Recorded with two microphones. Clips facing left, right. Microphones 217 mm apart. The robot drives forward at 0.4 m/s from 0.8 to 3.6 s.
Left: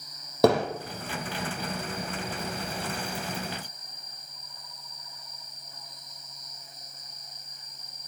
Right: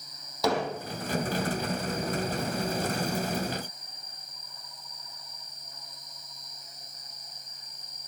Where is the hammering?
60° left (ahead or behind), 4 m.